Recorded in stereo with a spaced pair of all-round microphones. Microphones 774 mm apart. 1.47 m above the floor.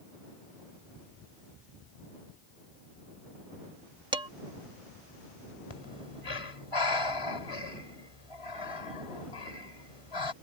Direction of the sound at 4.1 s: 5° right (ahead or behind).